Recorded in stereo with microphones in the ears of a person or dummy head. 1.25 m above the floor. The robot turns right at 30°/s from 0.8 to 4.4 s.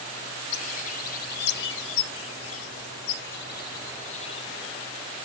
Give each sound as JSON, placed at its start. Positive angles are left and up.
{"t": 0.5, "sound": "a bird", "azimuth_deg": 40, "distance_m": 0.8}